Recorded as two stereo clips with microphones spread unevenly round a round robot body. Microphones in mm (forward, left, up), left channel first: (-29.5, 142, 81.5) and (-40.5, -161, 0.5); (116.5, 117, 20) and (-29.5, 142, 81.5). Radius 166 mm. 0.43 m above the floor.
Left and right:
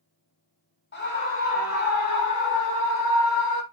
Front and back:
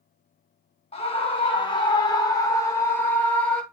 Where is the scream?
25° left, 4 m; by 3.6 s 70° left, 4 m.